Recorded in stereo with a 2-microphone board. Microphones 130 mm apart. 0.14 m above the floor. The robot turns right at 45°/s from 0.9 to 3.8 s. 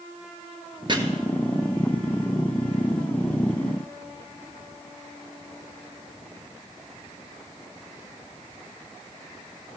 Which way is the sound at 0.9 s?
35° right (ahead or behind).